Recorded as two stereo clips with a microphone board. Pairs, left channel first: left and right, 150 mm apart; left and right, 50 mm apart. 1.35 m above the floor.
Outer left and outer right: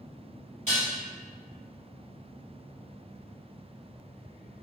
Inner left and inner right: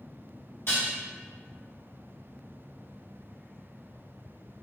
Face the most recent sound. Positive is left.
turn(degrees=55)  # may be behind; listen again after turning